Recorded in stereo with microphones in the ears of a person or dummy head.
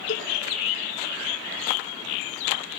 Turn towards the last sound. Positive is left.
turn(degrees=50)  # may be behind; listen again after turning